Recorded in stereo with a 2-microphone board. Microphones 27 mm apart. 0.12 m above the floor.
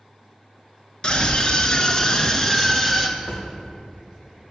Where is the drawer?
60° left (ahead or behind), 4.5 m.